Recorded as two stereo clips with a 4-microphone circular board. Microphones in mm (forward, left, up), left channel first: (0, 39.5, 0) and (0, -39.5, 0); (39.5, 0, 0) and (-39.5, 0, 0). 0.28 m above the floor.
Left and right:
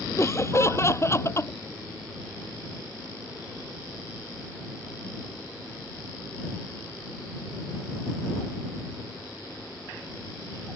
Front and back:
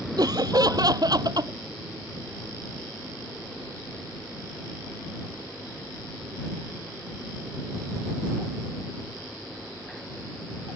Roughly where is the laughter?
Behind left.